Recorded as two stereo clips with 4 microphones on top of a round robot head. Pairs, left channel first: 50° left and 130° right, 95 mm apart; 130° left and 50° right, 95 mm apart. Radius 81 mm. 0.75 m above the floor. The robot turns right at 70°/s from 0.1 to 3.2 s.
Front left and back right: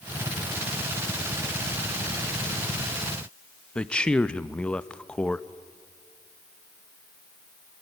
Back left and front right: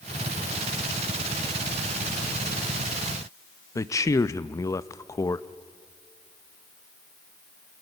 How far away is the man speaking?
About 0.9 m.